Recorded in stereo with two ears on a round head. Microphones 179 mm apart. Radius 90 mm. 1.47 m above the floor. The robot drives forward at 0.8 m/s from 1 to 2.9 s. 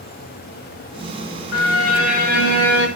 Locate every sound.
1.5 s a violin: 85° left, 3 m; by 2.9 s 65° left (ahead or behind), 3.5 m